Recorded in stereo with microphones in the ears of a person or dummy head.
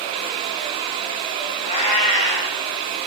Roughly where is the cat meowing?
Left.